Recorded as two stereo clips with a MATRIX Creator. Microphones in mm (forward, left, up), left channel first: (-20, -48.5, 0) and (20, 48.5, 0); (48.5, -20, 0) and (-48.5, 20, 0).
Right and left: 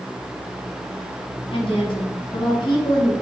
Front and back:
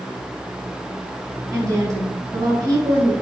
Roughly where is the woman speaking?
Behind right.